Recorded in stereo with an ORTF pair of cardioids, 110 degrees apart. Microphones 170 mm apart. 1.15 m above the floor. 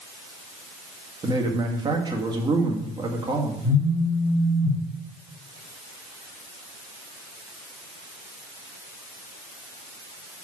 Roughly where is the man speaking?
Ahead right.